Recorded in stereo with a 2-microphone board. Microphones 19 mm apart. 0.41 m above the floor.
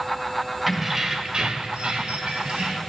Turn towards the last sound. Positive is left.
turn(degrees=-55)  # may be behind; listen again after turning